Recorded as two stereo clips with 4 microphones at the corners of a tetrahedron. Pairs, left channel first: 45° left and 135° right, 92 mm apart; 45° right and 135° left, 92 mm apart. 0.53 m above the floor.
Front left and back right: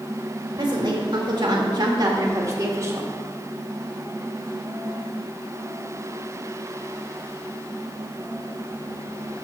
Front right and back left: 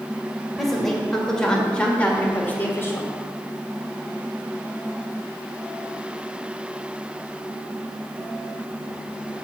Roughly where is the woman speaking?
Behind right.